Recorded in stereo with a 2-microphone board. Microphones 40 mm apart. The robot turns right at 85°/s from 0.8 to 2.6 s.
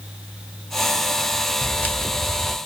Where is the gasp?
No gasp in this recording.